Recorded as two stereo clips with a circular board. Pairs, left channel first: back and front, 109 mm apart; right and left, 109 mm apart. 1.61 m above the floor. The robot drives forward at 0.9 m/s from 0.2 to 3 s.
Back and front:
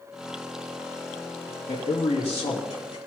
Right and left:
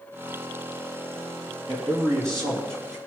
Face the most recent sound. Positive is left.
turn(degrees=155)